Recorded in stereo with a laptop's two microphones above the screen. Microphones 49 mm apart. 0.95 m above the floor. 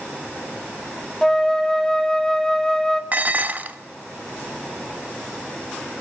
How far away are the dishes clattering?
About 0.7 m.